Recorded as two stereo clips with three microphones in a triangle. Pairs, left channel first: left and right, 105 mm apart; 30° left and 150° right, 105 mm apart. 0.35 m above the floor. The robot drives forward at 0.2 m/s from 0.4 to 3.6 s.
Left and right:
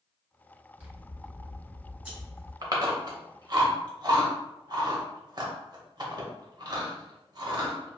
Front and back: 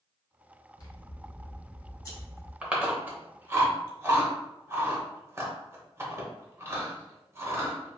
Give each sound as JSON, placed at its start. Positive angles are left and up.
{"t": 0.8, "sound": "scissors", "azimuth_deg": -15, "distance_m": 1.7}
{"t": 2.6, "sound": "chewing", "azimuth_deg": -75, "distance_m": 0.8}